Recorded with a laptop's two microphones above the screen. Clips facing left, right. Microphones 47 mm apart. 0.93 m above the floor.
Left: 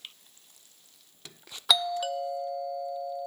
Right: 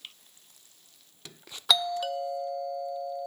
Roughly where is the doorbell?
Centre.